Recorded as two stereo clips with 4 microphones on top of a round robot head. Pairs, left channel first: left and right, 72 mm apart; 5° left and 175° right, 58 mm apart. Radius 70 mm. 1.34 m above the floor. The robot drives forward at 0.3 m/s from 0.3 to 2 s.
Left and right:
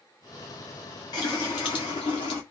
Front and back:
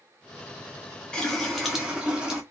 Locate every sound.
1.1 s a running tap: 75° left, 0.6 m; by 2.4 s 110° left, 0.6 m